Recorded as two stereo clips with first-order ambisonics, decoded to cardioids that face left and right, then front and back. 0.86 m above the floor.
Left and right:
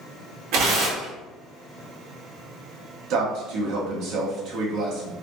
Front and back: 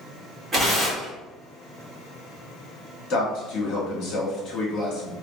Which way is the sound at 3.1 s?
50° right.